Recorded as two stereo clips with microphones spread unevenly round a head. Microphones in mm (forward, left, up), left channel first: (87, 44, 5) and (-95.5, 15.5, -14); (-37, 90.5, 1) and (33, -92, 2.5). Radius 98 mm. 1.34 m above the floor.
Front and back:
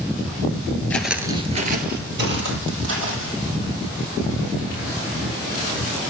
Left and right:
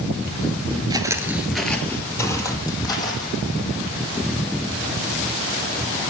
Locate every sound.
0.9 s footsteps: 40° right, 1.4 m; by 3.3 s straight behind, 3.5 m